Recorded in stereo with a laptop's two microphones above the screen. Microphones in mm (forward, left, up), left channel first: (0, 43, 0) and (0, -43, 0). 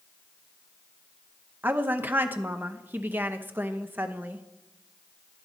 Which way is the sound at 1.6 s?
20° right (ahead or behind).